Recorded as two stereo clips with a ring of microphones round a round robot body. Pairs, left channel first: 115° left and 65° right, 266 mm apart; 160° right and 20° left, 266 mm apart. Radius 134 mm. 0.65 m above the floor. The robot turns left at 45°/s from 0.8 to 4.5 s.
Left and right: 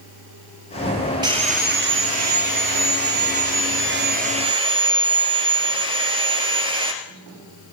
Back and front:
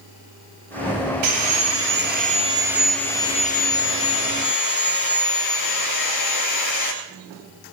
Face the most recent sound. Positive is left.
turn(degrees=-140)